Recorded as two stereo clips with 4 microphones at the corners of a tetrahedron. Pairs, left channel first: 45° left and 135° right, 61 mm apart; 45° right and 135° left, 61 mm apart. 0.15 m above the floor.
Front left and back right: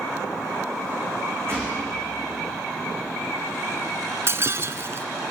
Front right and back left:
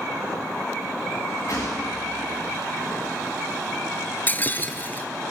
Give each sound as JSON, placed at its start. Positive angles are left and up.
{"t": 1.5, "sound": "a gunshot", "azimuth_deg": -85, "distance_m": 7.5}
{"t": 4.3, "sound": "breaking glass", "azimuth_deg": -100, "distance_m": 1.2}